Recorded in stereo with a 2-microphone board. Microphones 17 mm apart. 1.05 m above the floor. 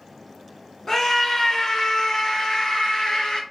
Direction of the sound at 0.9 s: 30° left (ahead or behind).